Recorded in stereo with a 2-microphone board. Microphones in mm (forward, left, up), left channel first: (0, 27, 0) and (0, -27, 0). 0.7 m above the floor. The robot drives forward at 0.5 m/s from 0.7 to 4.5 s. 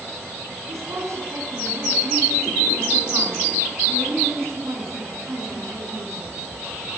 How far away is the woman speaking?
About 7.5 m.